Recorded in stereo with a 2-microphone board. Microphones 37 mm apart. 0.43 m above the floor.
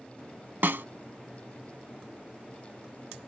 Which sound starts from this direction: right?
A snare drum, at 0.6 s.